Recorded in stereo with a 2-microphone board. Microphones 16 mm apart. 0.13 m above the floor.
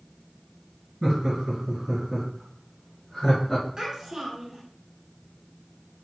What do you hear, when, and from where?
1.0 s laughter: 40° right (ahead or behind), 1.5 m; by 3.7 s 15° left (ahead or behind), 1.4 m
3.8 s a child speaking: 30° right (ahead or behind), 0.8 m